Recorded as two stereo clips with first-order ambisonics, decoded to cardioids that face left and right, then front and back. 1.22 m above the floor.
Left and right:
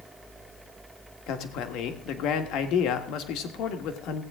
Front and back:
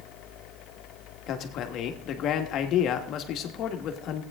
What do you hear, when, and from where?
1.3 s a man speaking: 50° left, 1.5 m